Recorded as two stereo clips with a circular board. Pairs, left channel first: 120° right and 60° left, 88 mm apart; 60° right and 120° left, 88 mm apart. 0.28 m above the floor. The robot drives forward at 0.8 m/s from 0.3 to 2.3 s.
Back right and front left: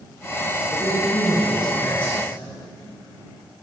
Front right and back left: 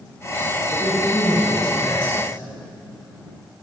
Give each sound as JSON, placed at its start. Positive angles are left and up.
{"t": 0.7, "sound": "a man speaking", "azimuth_deg": -30, "distance_m": 4.0}